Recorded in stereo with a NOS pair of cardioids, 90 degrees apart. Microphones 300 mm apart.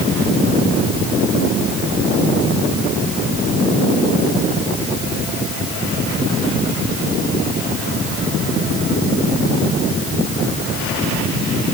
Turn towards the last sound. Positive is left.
No sound to turn to.